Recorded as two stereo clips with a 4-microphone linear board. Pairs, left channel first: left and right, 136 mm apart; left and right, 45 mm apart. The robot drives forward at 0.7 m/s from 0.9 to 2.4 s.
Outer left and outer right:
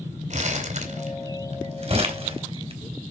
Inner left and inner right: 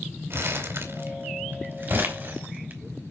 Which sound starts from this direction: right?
Crumpling, at 0.3 s.